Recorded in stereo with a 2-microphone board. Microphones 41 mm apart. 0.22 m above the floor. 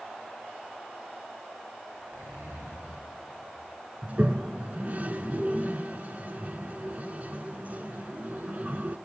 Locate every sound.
1.9 s a zipper: 80° right, 6 m
4.0 s a toilet flushing: 40° right (ahead or behind), 0.6 m